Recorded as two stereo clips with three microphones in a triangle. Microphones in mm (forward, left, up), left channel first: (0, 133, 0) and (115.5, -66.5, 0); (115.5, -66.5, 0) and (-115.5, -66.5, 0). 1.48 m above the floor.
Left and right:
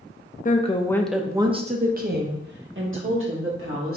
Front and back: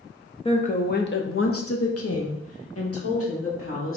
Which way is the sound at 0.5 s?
65° left.